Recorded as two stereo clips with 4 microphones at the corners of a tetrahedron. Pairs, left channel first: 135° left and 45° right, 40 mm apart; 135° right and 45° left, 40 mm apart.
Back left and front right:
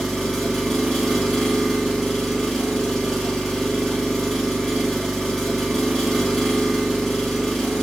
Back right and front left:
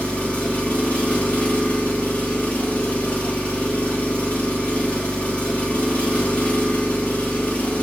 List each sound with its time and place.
0.0 s an engine running: 140° right, 1.0 m